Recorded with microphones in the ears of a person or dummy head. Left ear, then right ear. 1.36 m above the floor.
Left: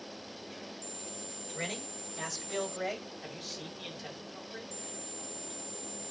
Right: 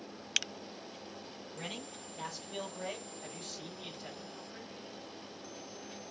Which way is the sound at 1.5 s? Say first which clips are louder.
Left 5 dB; 50° left (ahead or behind).